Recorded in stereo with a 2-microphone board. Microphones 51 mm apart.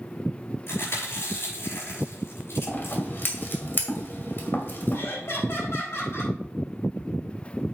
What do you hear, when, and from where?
0.7 s chewing: 55° left (ahead or behind), 5.5 m
2.7 s scissors: 45° left (ahead or behind), 1.9 m
4.9 s laughter: 50° left (ahead or behind), 3.5 m